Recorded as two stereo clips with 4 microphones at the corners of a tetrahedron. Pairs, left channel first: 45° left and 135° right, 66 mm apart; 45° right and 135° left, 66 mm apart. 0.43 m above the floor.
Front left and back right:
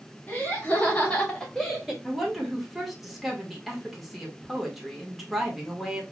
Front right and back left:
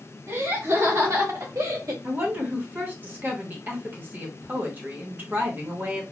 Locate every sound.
0.3 s laughter: 100° left, 2 m; by 1.9 s 135° left, 1.5 m
2.0 s a woman speaking: 140° left, 1.1 m